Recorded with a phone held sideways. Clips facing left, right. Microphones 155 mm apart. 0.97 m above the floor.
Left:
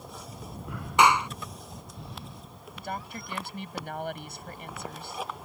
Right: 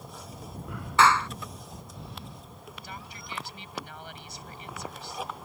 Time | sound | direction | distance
1.0 | a clap | 15° left (ahead or behind) | ?
2.8 | a woman speaking | 55° left (ahead or behind) | ?